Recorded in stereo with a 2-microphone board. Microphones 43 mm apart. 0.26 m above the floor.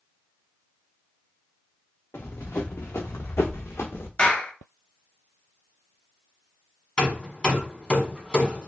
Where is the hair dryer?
I don't hear a hair dryer.